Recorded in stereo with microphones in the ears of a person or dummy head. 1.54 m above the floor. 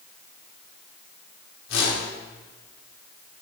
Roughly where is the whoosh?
Left.